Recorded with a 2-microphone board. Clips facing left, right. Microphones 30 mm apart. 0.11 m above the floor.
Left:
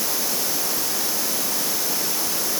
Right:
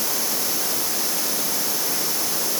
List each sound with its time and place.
Only background noise.